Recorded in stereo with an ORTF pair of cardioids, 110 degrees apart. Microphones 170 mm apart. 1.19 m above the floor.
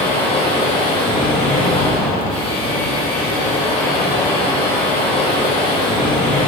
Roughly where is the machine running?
Ahead left.